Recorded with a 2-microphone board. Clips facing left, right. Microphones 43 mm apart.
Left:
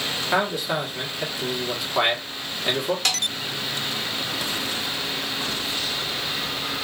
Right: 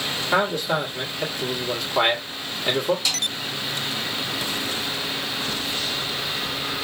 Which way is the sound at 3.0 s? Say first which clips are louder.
Left 1 dB; 60° left (ahead or behind).